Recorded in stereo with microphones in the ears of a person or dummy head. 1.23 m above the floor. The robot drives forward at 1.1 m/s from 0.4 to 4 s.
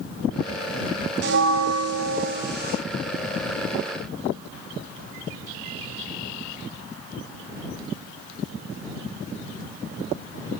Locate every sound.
1.2 s a bell: 60° right (ahead or behind), 1.2 m; by 2.8 s 40° right (ahead or behind), 1.6 m